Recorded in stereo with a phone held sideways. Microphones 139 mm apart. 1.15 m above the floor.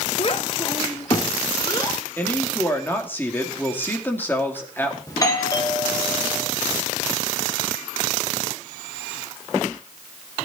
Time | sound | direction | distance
0.2 | a child speaking | 45° left (ahead or behind) | 0.7 m
2.2 | a woman speaking | 15° left (ahead or behind) | 2.5 m
5.1 | a doorbell | 25° left (ahead or behind) | 2.5 m